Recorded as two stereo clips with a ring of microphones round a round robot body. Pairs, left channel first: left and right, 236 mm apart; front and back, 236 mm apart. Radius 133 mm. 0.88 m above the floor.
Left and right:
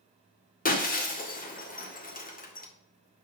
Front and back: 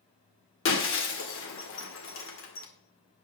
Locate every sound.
0.7 s breaking glass: 35° left, 1.9 m